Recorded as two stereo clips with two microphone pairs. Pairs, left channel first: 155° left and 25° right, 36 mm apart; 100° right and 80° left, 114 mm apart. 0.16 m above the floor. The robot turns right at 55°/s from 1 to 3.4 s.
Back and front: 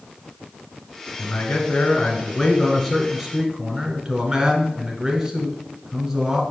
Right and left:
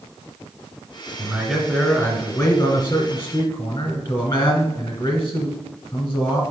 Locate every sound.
1.2 s a man speaking: 140° left, 1.3 m; by 6.4 s 95° right, 1.3 m